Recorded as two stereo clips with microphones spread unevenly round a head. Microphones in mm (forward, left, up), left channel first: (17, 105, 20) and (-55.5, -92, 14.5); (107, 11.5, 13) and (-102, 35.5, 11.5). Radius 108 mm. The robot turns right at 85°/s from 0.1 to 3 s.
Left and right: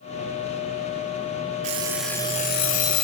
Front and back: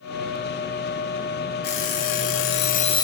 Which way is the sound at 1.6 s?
55° right.